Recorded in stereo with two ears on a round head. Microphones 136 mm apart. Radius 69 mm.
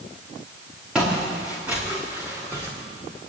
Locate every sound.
0.9 s footsteps: 5° right (ahead or behind), 5.5 m; by 2.7 s 15° right (ahead or behind), 4.5 m